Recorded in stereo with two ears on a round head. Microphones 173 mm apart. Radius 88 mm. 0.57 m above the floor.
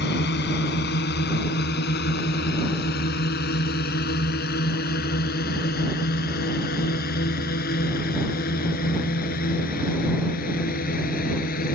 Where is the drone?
65° left (ahead or behind); by 11.8 s 55° left (ahead or behind).